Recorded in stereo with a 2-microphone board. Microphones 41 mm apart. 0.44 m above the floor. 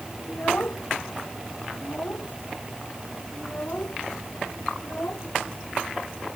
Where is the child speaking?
50° left (ahead or behind); by 6.3 s 40° left (ahead or behind).